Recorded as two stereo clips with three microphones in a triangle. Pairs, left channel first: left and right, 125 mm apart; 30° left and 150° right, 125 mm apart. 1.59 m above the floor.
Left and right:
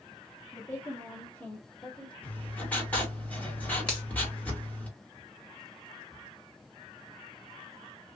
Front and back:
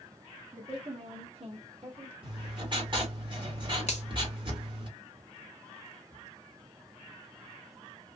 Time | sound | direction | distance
0.5 | a woman speaking | 165° left | 1.2 m
2.2 | writing | 165° left | 2 m
3.9 | a finger snap | 10° left | 1.7 m